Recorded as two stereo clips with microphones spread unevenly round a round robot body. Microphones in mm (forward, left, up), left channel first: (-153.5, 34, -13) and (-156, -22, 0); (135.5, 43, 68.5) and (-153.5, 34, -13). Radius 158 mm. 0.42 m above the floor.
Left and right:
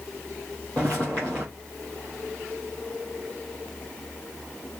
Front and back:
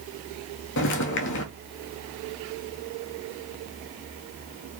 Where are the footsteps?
5° left, 0.5 m.